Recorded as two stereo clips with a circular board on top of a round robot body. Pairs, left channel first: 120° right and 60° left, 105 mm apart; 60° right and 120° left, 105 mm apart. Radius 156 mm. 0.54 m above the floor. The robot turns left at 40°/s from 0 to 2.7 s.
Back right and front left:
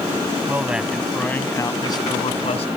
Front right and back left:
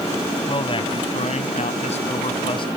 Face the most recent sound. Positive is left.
turn(degrees=-100)